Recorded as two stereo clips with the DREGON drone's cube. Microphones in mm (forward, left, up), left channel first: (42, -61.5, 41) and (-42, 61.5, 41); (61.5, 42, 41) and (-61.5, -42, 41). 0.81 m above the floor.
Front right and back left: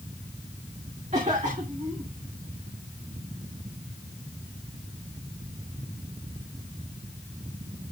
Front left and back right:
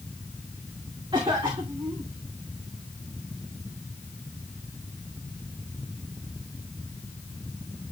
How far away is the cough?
About 2.5 m.